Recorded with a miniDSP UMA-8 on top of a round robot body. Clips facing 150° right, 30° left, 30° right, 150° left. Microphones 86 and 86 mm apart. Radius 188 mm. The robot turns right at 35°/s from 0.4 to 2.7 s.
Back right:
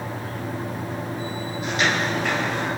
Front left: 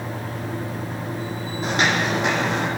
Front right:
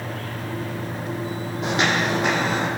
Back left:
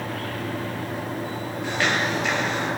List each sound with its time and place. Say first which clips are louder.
1.6 s footsteps: front left 2 dB, front right 3 dB; 25° right, 2.5 m; by 2.7 s 30° left, 3 m